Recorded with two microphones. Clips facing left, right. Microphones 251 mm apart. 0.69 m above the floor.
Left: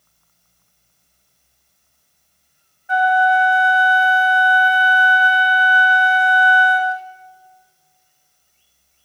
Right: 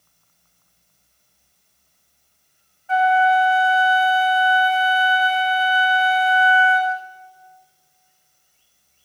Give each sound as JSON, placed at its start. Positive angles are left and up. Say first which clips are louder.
{"t": 2.9, "sound": "a flute", "louder": "even", "side_deg": 15, "distance_m": 0.8}